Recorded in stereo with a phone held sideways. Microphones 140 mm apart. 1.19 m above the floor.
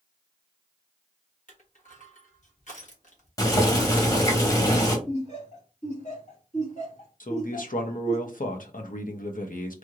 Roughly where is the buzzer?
I don't hear a buzzer.